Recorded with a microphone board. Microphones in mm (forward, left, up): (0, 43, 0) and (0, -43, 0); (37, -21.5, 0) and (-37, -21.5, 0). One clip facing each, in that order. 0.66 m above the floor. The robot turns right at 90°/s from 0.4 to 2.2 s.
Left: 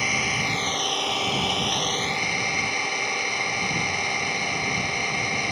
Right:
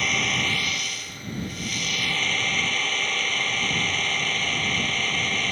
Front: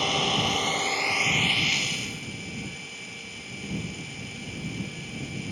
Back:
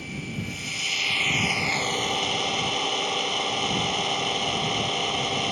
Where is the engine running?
5° left; by 5.5 s 170° left.